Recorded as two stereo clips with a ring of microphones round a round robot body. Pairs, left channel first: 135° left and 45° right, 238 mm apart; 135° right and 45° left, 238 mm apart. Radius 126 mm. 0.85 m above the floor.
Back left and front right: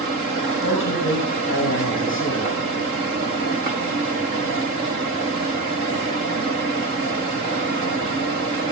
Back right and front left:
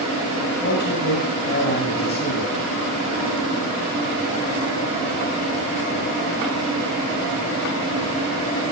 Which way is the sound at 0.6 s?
175° left.